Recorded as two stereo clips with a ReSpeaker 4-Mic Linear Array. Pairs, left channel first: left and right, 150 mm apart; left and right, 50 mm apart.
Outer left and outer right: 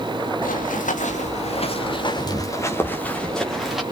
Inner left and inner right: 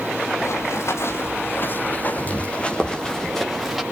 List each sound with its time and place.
0.4 s running footsteps: 65° left (ahead or behind), 4 m; by 3.8 s centre (ahead or behind), 4.5 m